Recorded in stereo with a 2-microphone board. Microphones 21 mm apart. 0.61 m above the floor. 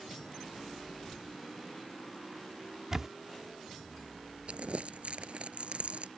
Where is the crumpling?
65° right (ahead or behind).